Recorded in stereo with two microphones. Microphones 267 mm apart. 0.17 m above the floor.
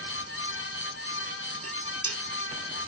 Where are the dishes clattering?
65° right (ahead or behind), 5 m.